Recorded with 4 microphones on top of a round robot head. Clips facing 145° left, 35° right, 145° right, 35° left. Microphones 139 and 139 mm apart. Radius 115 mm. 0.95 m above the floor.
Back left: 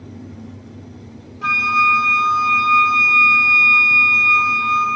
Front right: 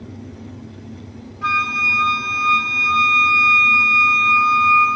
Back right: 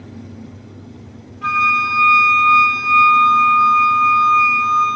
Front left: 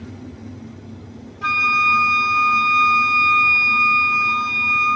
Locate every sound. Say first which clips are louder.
1.4 s a flute: back left 4 dB, back right 3 dB; 85° left, 0.8 m